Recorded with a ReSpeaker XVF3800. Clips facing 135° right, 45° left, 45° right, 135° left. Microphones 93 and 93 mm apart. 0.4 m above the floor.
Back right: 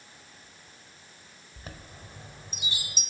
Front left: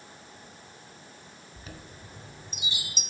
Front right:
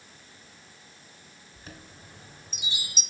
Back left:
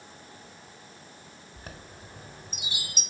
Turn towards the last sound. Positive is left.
turn(degrees=175)